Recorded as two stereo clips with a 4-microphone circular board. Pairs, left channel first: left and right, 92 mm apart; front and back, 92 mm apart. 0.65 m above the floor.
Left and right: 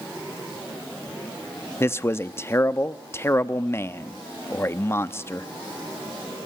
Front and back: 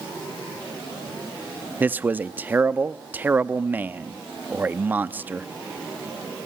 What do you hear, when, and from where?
1.8 s a man speaking: 125° left, 0.6 m